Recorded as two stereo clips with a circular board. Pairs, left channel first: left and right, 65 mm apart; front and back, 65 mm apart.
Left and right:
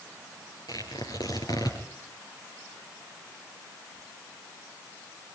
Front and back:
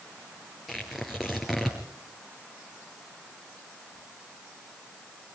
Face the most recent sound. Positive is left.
turn(degrees=95)